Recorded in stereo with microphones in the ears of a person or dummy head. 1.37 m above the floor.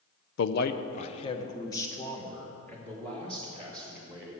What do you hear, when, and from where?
0.4 s a man speaking: 75° left (ahead or behind), 0.6 m; by 4.3 s centre (ahead or behind), 2.5 m